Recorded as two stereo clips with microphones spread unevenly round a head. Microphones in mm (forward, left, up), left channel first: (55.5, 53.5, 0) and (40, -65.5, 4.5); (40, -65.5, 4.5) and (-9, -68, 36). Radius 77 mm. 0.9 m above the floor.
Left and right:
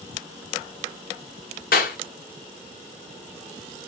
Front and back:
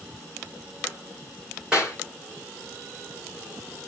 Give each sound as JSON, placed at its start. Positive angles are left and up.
{"t": 1.7, "sound": "a clap", "azimuth_deg": 100, "distance_m": 1.6}